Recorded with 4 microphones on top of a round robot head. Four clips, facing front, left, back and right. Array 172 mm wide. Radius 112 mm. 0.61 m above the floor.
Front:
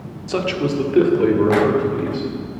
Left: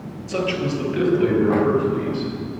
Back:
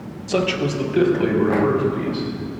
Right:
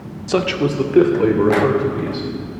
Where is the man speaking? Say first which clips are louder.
Right 5 dB, even; 95° right, 1.6 m; by 2.3 s 50° right, 3.5 m.